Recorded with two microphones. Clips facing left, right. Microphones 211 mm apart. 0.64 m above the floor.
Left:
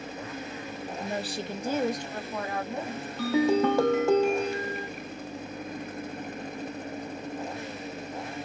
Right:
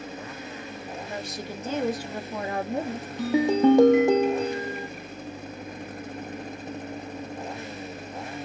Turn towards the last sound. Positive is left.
turn(degrees=-15)  # may be behind; listen again after turning